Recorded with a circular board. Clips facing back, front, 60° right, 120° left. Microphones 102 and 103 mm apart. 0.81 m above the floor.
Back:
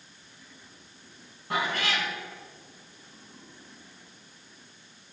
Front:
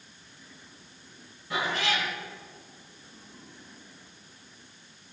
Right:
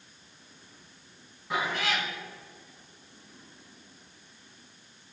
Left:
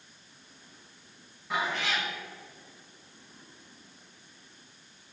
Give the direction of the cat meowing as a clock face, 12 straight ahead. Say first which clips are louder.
Even, right 1 dB; 5 o'clock.